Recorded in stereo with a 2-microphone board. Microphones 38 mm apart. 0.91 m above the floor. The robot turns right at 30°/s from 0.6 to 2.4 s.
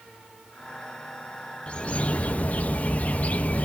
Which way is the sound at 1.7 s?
30° left (ahead or behind).